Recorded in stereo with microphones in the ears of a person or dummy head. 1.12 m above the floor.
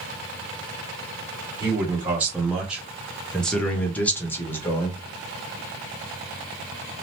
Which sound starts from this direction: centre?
A man speaking, at 1.6 s.